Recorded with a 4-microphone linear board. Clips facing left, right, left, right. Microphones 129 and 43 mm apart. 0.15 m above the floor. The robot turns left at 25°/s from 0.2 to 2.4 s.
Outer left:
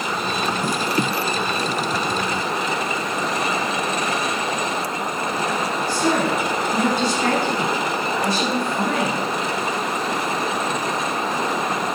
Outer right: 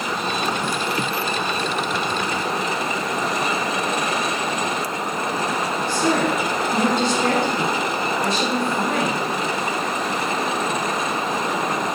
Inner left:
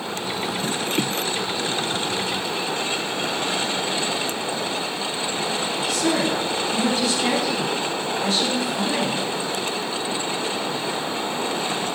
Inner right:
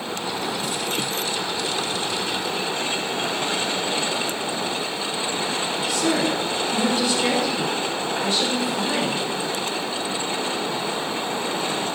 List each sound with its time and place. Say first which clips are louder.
5.9 s a woman speaking: even, even; 25° right (ahead or behind), 3 m